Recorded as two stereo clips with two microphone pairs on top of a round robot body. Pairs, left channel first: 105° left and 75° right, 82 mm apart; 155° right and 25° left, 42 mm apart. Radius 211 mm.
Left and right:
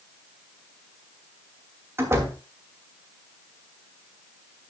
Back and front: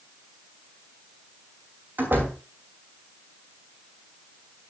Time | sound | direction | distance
2.0 | a door slam | 15° right | 3 m